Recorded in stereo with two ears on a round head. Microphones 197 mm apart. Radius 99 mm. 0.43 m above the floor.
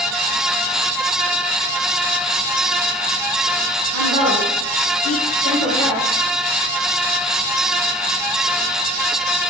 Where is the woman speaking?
25° right (ahead or behind), 3.5 m; by 6.1 s 30° right (ahead or behind), 5 m.